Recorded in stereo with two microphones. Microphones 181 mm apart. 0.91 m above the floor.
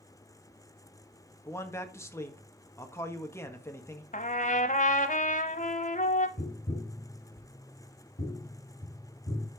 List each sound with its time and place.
1.4 s a man speaking: 15° left (ahead or behind), 1.5 m
4.1 s a trumpet: 45° left (ahead or behind), 1.0 m
6.4 s tapping: 55° left (ahead or behind), 6 m